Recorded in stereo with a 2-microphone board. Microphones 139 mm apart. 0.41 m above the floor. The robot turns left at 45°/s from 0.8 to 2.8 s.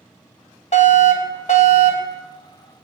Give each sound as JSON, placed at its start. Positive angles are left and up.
{"t": 0.7, "sound": "a fire alarm", "azimuth_deg": 105, "distance_m": 4.0}